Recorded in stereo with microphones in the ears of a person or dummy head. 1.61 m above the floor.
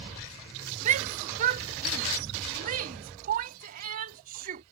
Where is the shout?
45° right (ahead or behind); by 4.6 s 50° right (ahead or behind).